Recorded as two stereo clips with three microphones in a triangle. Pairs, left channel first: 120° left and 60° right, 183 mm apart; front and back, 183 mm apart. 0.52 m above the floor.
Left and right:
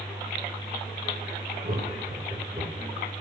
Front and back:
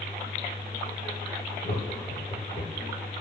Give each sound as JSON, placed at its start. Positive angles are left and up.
{"t": 1.6, "sound": "laughter", "azimuth_deg": -30, "distance_m": 1.6}